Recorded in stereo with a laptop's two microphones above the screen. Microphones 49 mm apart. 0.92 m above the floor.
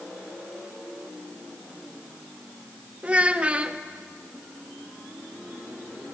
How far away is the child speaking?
About 0.8 m.